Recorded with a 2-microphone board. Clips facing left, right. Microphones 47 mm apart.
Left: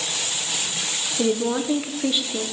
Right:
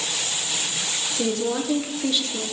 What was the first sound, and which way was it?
A woman speaking, 15° left (ahead or behind).